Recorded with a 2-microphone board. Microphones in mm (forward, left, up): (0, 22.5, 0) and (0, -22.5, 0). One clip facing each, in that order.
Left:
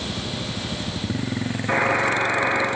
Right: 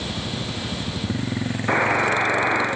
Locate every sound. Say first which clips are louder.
1.7 s a buzzer: right 1 dB; 50° right (ahead or behind), 2.5 m